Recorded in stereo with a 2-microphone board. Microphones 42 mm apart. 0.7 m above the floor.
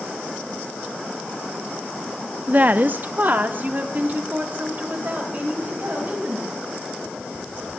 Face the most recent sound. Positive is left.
turn(degrees=-35)  # may be behind; listen again after turning